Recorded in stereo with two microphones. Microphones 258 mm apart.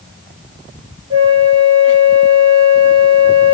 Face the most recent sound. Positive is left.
turn(degrees=-25)  # may be behind; listen again after turning